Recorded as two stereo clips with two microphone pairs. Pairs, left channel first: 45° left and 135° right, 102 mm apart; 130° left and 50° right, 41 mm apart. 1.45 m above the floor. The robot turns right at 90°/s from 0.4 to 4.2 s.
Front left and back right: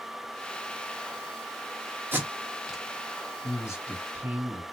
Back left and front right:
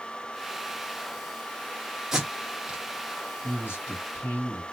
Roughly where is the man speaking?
Left.